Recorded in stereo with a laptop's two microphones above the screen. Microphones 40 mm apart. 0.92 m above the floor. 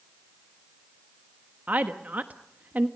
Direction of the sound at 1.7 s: 45° right (ahead or behind).